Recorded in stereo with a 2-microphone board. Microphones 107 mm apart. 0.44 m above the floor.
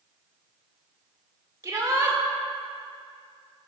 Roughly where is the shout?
Right.